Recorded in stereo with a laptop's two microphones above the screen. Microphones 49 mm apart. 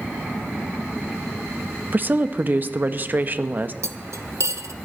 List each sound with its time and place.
1.9 s a woman speaking: 40° right (ahead or behind), 1.0 m
3.8 s cutlery clinking: 70° right (ahead or behind), 0.9 m